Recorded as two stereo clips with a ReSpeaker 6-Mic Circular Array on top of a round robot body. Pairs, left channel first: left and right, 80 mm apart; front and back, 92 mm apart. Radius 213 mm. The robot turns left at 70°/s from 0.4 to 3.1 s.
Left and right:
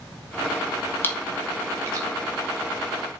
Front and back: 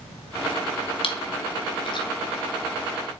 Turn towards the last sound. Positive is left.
turn(degrees=-120)